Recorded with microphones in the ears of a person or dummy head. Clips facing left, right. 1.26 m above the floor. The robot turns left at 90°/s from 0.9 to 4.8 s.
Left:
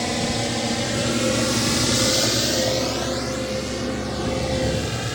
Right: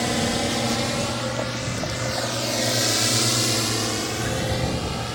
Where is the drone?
Centre (ahead or behind); by 5.2 s 25° left (ahead or behind).